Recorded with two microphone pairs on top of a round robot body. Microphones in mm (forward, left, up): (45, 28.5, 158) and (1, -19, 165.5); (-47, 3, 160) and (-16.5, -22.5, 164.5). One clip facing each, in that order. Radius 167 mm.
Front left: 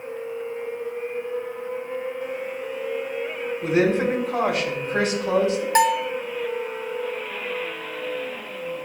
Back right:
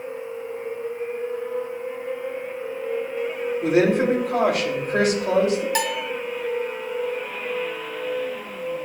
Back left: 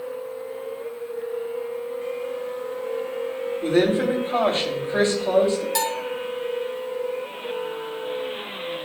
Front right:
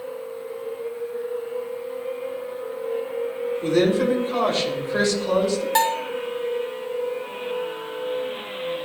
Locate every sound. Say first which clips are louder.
3.6 s a woman speaking: back right 2 dB, even; 160° right, 3 m
5.8 s a bell: front left 6 dB, front right 4 dB; 5° left, 0.8 m